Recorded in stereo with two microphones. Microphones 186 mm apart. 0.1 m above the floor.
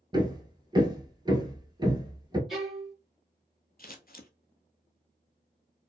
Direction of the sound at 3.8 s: 55° left (ahead or behind).